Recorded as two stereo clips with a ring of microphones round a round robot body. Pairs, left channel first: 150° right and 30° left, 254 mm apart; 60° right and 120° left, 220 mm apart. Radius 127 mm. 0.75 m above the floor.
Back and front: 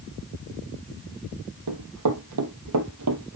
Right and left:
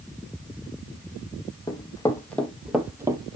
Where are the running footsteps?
10° left, 2.0 m; by 3.4 s 55° left, 1.5 m.